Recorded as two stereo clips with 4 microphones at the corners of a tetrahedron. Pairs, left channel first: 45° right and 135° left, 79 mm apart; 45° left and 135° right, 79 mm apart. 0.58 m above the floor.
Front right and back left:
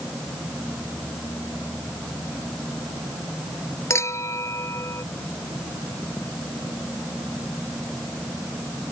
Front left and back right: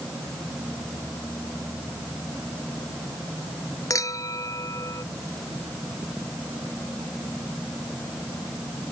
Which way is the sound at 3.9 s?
5° left.